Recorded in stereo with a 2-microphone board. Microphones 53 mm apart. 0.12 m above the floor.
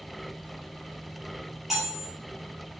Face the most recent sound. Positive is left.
turn(degrees=-5)  # may be behind; listen again after turning